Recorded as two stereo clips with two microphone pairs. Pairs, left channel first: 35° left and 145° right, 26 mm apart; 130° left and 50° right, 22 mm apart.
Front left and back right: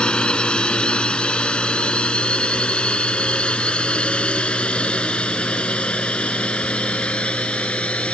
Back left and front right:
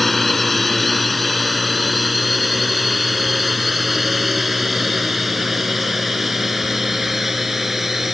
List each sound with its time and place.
0.0 s a drone: 45° left; by 8.2 s 25° left